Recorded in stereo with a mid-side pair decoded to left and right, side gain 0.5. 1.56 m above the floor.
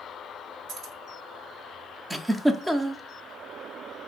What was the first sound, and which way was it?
Keys jangling, 70° right.